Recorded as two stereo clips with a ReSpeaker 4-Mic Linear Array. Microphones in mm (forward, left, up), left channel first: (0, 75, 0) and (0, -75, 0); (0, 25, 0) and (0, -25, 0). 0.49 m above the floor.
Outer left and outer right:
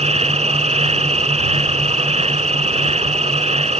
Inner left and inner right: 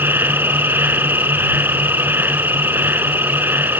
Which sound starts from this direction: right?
An insect, at 0.0 s.